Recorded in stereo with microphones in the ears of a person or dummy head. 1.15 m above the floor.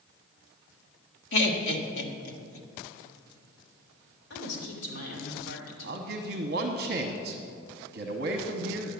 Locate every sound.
1.3 s laughter: 65° left (ahead or behind), 1.6 m
4.3 s a woman speaking: 65° left (ahead or behind), 3.5 m
5.8 s a man speaking: 50° right (ahead or behind), 0.9 m